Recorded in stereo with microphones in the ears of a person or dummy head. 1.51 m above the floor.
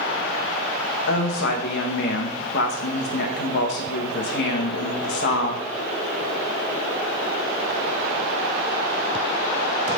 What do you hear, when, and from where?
1.1 s a woman speaking: 60° left (ahead or behind), 1.7 m